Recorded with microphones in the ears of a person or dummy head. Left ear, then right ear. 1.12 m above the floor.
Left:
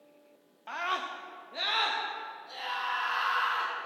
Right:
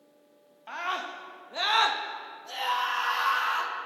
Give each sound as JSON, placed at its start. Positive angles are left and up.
{"t": 0.7, "sound": "a scream", "side_deg": 10, "distance_m": 1.3}